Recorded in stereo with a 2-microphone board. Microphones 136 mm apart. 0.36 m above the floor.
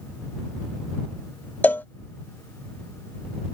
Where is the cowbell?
15° left (ahead or behind).